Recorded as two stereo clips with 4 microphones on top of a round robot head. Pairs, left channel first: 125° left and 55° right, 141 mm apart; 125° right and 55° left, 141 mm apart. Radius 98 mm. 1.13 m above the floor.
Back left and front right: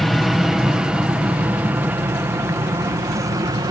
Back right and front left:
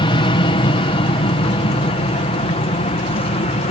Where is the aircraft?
145° right; by 3.7 s 105° right.